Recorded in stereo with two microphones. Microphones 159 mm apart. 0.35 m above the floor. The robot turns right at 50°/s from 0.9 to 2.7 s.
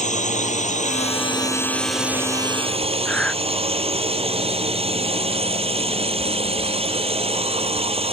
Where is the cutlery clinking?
I don't hear cutlery clinking.